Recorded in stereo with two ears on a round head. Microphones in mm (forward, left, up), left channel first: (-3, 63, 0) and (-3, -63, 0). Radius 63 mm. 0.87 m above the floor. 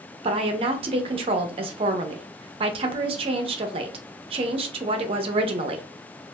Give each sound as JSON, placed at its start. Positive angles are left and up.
{"t": 0.2, "sound": "a woman speaking", "side_deg": -40, "distance_m": 0.5}